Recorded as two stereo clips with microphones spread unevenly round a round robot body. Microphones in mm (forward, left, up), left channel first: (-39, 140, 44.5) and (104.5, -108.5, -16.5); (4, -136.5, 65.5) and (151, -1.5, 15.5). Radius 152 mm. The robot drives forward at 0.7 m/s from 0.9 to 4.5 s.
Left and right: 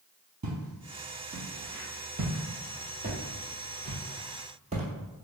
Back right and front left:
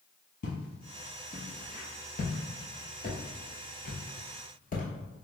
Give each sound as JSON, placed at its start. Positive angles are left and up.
{"t": 0.4, "sound": "footsteps", "azimuth_deg": -125, "distance_m": 1.3}